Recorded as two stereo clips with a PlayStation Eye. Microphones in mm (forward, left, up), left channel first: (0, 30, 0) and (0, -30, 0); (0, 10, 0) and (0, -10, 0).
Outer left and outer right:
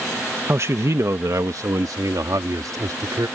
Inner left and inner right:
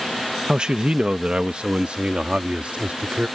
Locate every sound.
0.5 s a man speaking: 45° right (ahead or behind); by 3.3 s 85° right